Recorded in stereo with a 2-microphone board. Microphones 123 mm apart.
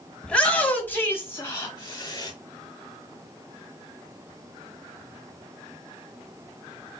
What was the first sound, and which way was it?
A shout, 10° left (ahead or behind).